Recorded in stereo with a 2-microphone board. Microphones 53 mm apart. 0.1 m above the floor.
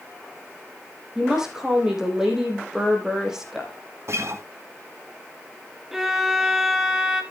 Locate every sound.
1.1 s a woman speaking: 10° right (ahead or behind), 4.5 m
4.1 s a guitar: 60° right (ahead or behind), 1.3 m
5.9 s a violin: 5° right (ahead or behind), 1.5 m